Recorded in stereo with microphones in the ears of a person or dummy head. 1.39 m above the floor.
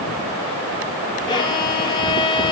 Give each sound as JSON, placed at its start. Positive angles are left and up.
{"t": 1.3, "sound": "a violin", "side_deg": 20, "distance_m": 2.0}